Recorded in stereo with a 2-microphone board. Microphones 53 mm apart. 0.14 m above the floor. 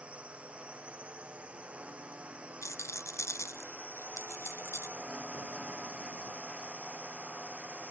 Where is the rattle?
65° left (ahead or behind).